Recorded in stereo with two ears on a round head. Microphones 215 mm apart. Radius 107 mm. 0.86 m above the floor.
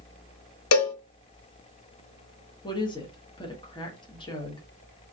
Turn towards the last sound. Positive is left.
turn(degrees=20)  # may be behind; listen again after turning